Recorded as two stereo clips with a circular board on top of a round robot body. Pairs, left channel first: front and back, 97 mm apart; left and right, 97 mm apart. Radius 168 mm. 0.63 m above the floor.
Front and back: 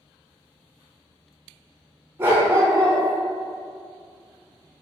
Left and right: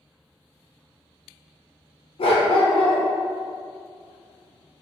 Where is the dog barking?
110° left, 0.6 m.